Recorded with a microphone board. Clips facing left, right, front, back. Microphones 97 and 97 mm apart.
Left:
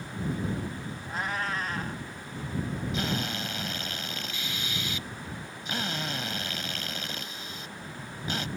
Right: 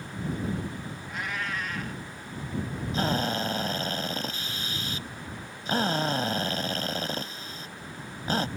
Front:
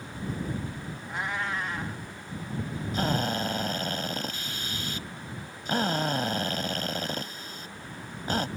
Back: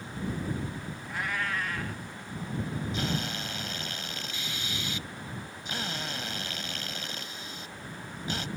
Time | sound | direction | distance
1.1 | a cat meowing | 55° left | ?
2.9 | a drill | 40° right | ?